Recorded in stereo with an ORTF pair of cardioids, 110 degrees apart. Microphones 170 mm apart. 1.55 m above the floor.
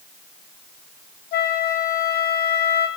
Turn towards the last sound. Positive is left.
turn(degrees=65)